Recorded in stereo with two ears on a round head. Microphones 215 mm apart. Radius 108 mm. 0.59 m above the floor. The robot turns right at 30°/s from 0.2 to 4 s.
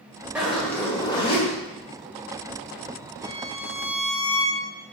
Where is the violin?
70° left (ahead or behind), 1.2 m; by 4.6 s 75° left (ahead or behind), 1.2 m.